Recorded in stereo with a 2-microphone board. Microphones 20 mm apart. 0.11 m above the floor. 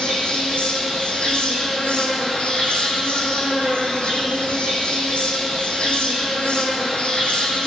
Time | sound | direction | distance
0.0 | an insect | 60° left (ahead or behind) | 1.7 m